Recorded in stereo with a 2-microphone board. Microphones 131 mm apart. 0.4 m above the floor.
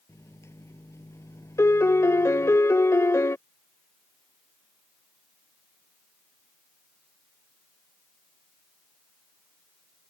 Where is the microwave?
20° left (ahead or behind).